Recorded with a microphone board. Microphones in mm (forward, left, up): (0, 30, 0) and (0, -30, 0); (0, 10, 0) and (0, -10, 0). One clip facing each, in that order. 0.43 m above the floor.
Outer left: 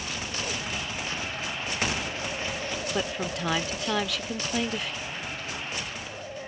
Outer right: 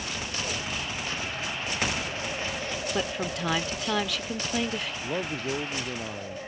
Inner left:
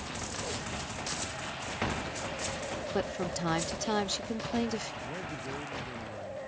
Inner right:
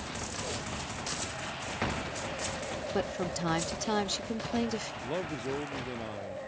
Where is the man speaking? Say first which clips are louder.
Outer right 5 dB, inner right 4 dB; 70° right (ahead or behind).